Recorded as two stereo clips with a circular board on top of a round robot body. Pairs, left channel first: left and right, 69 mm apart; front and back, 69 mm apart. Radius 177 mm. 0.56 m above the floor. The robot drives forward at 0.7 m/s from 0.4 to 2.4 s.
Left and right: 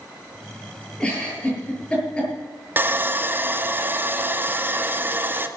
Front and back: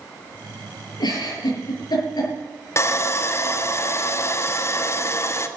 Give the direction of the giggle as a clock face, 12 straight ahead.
12 o'clock.